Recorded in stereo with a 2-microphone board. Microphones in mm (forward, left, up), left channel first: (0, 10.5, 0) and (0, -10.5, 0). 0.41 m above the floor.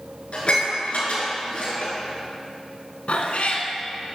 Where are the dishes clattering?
70° left (ahead or behind), 4 m.